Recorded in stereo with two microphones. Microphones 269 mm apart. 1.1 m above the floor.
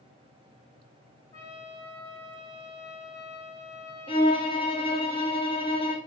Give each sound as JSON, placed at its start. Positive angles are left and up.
{"t": 1.3, "sound": "a trumpet", "side_deg": 10, "distance_m": 2.0}
{"t": 4.1, "sound": "a violin", "side_deg": 20, "distance_m": 0.7}